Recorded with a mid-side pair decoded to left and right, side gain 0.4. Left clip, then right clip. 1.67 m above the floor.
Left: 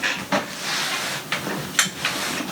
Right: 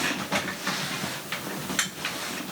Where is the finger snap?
No finger snap in this recording.